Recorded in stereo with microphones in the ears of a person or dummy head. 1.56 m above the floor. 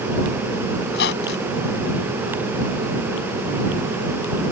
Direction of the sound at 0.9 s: 60° left (ahead or behind).